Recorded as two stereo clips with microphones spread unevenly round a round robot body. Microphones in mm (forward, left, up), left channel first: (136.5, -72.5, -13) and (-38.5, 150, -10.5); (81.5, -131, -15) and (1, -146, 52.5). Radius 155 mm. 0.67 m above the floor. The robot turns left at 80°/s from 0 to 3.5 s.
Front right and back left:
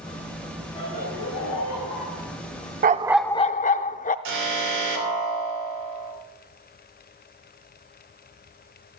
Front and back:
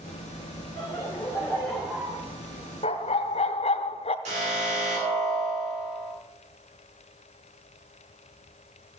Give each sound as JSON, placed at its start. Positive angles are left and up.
{"t": 0.8, "sound": "laughter", "azimuth_deg": 20, "distance_m": 2.5}
{"t": 2.8, "sound": "a dog barking", "azimuth_deg": 65, "distance_m": 0.5}
{"t": 4.2, "sound": "an alarm", "azimuth_deg": 160, "distance_m": 3.0}